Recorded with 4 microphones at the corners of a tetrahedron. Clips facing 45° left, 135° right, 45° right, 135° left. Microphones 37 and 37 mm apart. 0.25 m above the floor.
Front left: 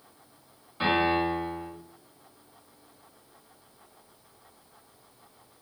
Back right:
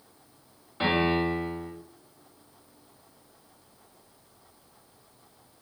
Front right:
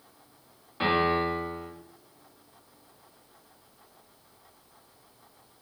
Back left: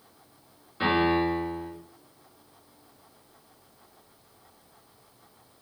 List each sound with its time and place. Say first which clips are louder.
0.8 s a piano: even, back left 1 dB; 70° right, 1.7 m